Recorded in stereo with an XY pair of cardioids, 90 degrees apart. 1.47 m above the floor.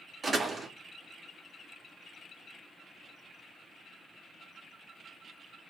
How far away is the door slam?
About 3 m.